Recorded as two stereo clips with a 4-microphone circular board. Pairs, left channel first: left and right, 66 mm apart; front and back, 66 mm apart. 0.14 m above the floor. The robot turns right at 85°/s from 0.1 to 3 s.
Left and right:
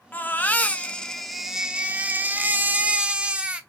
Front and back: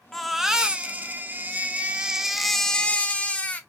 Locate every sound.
0.1 s a baby crying: 75° left, 0.5 m; by 3.6 s 40° right, 0.5 m